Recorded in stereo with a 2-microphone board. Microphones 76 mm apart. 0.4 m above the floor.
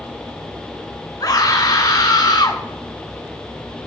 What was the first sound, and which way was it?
A scream, 60° left (ahead or behind).